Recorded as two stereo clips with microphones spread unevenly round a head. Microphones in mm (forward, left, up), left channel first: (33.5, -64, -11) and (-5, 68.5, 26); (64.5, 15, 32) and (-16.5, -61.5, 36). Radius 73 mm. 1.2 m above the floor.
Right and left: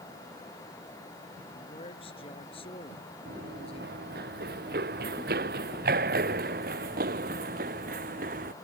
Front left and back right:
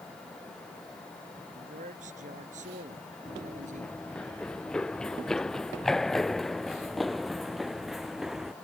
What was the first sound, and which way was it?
A man speaking, 130° right.